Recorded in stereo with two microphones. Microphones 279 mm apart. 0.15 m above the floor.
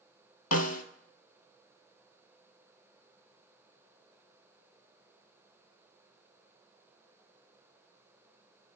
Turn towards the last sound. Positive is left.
turn(degrees=65)  # may be behind; listen again after turning